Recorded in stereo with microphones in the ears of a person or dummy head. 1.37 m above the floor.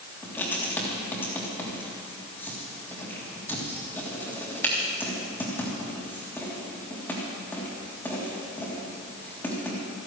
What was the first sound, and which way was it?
Writing, 10° left (ahead or behind).